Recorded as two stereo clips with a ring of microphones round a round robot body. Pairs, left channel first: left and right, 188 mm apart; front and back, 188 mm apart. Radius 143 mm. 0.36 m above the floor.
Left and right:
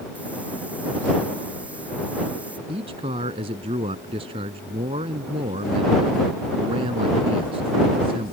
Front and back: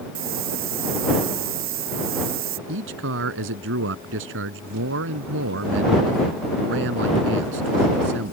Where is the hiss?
175° right.